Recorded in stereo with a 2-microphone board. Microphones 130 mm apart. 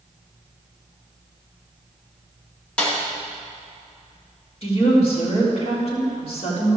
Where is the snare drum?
10° left (ahead or behind), 2.5 m.